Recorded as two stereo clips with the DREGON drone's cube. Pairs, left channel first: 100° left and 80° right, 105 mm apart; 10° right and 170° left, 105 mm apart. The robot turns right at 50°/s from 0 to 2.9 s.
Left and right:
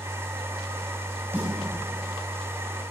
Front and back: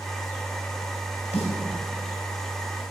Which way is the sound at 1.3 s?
10° right.